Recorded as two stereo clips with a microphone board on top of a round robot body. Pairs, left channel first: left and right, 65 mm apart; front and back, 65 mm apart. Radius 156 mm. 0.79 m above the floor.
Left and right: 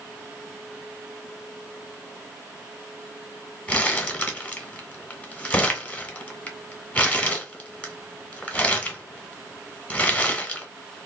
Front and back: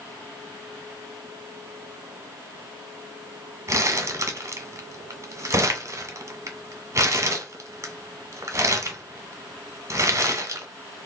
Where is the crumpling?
155° left, 1.1 m.